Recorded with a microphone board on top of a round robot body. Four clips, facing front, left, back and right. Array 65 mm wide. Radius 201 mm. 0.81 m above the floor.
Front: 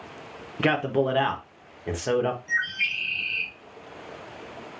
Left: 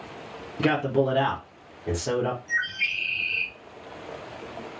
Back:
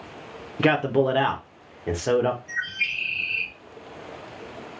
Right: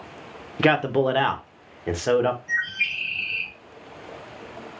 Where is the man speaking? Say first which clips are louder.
Right 3 dB, back 3 dB; 85° right, 0.9 m.